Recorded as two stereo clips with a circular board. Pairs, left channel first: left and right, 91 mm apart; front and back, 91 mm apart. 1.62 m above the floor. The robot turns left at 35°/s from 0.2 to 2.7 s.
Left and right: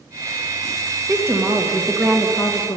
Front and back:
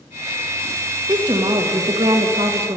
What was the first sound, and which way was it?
A woman speaking, 140° right.